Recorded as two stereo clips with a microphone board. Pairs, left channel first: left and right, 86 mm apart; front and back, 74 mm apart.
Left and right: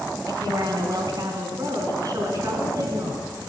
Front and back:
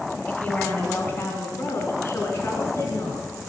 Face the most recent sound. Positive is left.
turn(degrees=-45)